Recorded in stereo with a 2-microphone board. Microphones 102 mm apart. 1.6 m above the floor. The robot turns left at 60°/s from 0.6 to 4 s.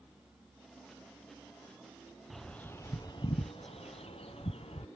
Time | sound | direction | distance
2.3 | a bird | centre (ahead or behind) | ?